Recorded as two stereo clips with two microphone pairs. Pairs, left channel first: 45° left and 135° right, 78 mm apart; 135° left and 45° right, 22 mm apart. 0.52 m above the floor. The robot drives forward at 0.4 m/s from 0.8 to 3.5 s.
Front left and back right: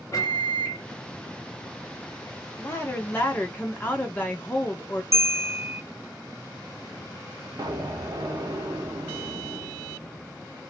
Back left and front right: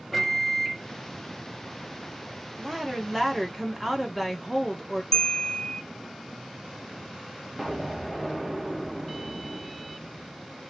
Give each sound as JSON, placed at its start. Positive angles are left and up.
{"t": 0.1, "sound": "a microwave", "azimuth_deg": 40, "distance_m": 1.1}
{"t": 2.6, "sound": "a woman speaking", "azimuth_deg": 15, "distance_m": 1.2}
{"t": 5.1, "sound": "a bell", "azimuth_deg": -170, "distance_m": 0.7}
{"t": 7.6, "sound": "an explosion", "azimuth_deg": -140, "distance_m": 0.6}